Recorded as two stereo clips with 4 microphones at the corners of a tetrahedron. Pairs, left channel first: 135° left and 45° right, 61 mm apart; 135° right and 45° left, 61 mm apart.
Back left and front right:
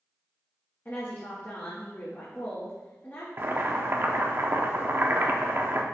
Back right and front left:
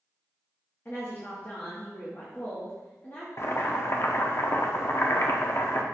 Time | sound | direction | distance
0.8 | a woman speaking | straight behind | 1.3 m
3.4 | boiling | 95° right | 0.6 m